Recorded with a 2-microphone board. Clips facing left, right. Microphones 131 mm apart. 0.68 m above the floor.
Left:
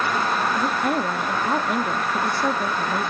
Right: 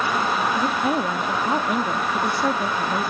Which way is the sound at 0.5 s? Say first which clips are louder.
Right 1 dB; centre (ahead or behind).